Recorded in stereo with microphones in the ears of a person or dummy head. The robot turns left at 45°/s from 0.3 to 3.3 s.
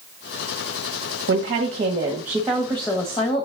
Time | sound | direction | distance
1.3 | a woman speaking | 125° right | 1.1 m